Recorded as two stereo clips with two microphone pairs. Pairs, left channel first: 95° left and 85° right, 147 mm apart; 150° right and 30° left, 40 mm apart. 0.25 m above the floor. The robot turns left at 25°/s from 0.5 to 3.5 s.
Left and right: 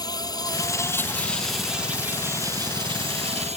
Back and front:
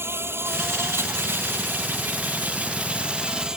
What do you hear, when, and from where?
0.0 s an insect: 30° left; by 3.6 s 45° right